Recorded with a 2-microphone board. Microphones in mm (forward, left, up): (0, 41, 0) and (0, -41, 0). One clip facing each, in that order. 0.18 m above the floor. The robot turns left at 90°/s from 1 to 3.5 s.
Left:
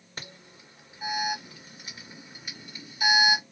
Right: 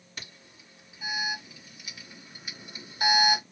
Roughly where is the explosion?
No explosion in this recording.